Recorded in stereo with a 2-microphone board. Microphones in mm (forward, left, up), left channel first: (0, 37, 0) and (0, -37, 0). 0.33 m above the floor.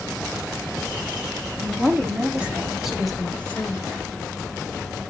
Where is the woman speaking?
30° right (ahead or behind), 2 m; by 3.9 s 30° left (ahead or behind), 1.2 m.